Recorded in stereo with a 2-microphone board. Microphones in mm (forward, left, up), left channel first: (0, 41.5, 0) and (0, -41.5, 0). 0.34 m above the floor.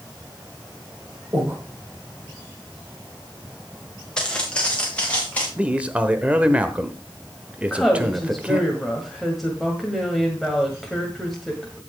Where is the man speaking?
15° right (ahead or behind), 1.0 m.